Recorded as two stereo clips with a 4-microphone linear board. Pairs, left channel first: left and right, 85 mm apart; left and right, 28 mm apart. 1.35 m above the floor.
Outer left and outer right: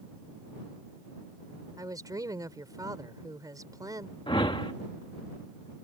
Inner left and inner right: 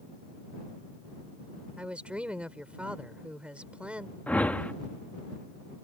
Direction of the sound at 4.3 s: 70° left (ahead or behind).